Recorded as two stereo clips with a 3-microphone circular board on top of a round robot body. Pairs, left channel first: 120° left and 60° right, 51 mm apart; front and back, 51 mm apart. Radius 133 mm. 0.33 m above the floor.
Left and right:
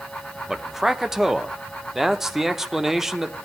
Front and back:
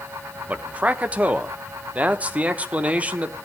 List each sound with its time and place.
0.5 s a man speaking: 140° right, 1.0 m